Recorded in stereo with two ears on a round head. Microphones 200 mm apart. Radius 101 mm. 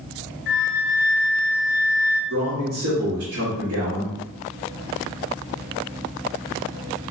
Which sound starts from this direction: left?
A flute, at 0.5 s.